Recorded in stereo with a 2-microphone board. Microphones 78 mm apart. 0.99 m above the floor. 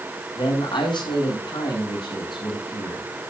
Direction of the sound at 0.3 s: 85° left.